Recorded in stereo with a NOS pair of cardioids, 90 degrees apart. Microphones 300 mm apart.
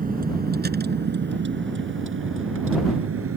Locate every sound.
0.0 s a vehicle: 30° right; by 3.4 s 50° right